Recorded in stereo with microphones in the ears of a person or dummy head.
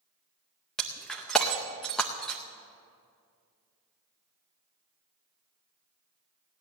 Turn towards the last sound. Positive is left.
turn(degrees=0)  # may be behind; listen again after turning